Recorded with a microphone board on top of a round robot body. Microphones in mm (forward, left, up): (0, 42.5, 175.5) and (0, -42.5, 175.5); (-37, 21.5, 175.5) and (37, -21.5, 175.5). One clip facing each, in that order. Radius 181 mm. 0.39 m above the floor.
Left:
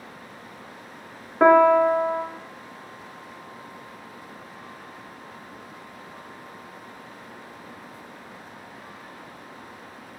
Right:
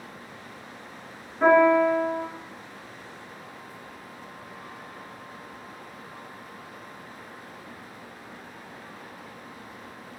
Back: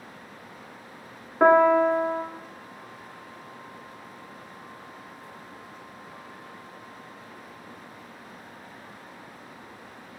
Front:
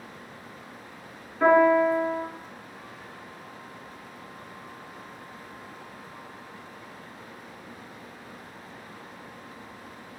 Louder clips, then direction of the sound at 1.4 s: Left 3 dB, back 1 dB; 115° left.